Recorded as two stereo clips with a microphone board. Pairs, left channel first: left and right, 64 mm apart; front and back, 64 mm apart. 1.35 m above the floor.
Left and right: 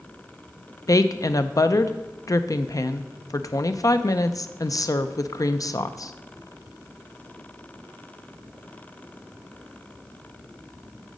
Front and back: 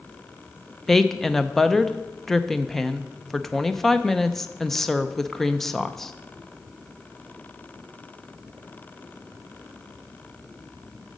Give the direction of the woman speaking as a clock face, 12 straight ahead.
9 o'clock.